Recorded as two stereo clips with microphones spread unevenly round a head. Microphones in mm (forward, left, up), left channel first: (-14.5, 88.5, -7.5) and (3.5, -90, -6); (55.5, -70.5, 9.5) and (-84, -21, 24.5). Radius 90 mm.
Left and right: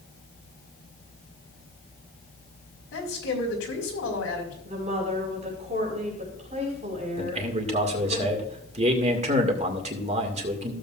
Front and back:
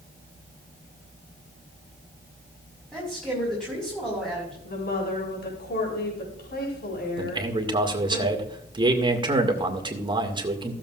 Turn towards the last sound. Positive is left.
turn(degrees=-140)